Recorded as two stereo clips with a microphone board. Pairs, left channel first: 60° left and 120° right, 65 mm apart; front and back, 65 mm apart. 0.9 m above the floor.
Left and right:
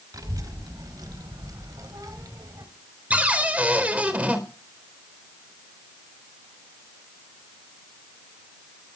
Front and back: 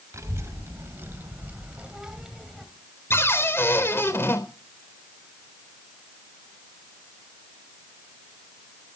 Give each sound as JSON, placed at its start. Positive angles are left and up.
{"t": 0.1, "sound": "a child speaking", "azimuth_deg": -140, "distance_m": 4.0}
{"t": 3.1, "sound": "a cupboard door", "azimuth_deg": -55, "distance_m": 4.0}